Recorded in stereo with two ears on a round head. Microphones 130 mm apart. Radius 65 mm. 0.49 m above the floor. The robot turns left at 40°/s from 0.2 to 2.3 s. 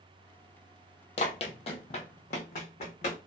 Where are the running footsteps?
45° left (ahead or behind), 0.6 m.